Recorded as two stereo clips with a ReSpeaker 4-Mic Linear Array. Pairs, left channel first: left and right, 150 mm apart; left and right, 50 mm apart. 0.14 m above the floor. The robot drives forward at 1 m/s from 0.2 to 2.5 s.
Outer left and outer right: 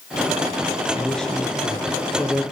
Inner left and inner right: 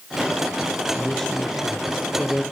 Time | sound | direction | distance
0.9 | a man speaking | 5° left (ahead or behind) | 1.6 m